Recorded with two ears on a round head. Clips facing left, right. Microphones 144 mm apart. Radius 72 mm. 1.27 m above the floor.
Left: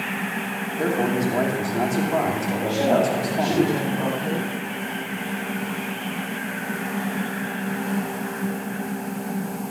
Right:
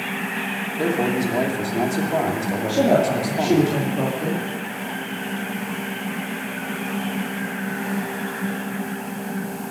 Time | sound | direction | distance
0.8 | a man speaking | 5° right (ahead or behind) | 2.5 m
2.7 | a woman speaking | 60° right (ahead or behind) | 2.5 m